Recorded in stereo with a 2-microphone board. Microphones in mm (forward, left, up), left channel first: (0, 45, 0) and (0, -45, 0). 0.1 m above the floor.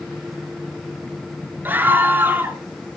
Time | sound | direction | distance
1.6 | a scream | 20° right (ahead or behind) | 1.6 m